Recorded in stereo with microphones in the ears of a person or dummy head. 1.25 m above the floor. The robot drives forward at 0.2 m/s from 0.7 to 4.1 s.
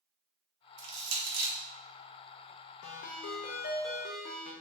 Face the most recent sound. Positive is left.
turn(degrees=40)  # may be behind; listen again after turning